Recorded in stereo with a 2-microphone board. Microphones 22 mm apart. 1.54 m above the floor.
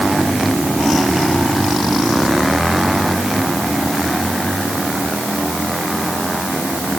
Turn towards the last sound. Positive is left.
No sound to turn to.